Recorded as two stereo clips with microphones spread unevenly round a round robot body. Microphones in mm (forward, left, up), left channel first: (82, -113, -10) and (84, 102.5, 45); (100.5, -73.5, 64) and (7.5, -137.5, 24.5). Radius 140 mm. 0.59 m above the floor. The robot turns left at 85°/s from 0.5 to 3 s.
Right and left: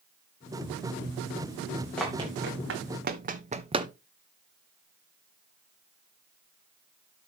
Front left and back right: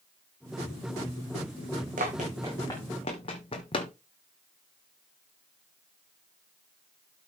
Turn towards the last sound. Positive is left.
turn(degrees=30)